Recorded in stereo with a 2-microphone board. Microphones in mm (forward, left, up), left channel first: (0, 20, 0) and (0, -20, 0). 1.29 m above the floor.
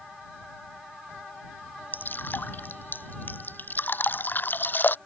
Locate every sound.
1.9 s dripping: 50° left (ahead or behind)